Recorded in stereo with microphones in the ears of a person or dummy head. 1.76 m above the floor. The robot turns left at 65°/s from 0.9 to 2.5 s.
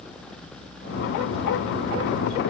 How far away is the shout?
I don't hear a shout.